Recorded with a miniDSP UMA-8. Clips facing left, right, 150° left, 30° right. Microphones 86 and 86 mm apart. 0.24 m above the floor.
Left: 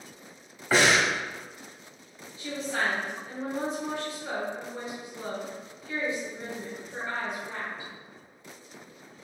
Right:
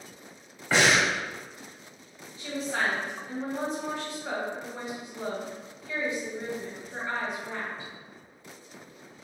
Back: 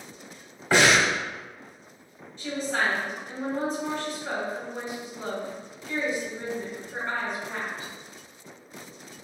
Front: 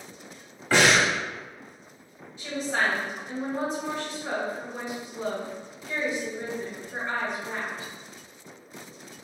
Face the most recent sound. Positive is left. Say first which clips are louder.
# even, even
turn(degrees=-100)